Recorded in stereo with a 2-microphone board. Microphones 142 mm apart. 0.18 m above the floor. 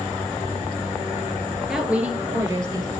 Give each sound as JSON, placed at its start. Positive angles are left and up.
{"t": 1.6, "sound": "a woman speaking", "side_deg": 0, "distance_m": 3.0}